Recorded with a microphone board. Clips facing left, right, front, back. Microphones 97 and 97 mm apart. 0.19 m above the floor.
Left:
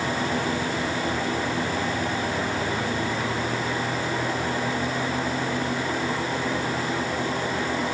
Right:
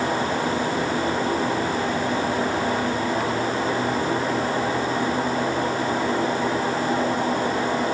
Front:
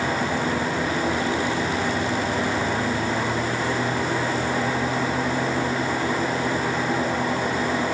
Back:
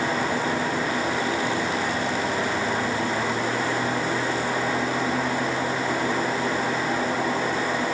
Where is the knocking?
I don't hear knocking.